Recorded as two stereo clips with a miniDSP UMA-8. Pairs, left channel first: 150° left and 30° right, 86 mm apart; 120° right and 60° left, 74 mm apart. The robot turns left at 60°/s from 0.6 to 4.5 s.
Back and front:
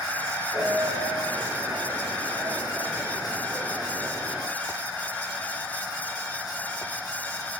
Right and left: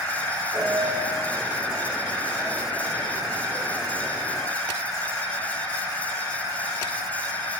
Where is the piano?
60° left, 1.1 m; by 1.2 s 25° left, 1.1 m.